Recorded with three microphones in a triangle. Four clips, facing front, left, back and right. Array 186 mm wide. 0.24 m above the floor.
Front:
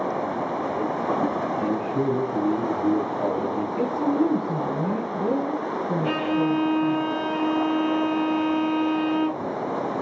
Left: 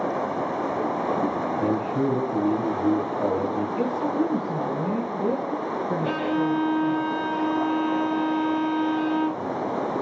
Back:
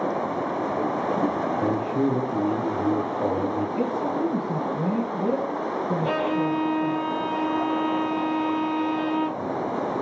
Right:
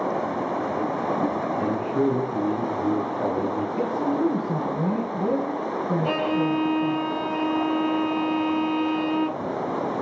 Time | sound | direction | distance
1.6 | a man speaking | 75° left | 1.9 m
3.8 | a woman speaking | 60° right | 1.7 m
6.0 | a violin | 135° right | 0.5 m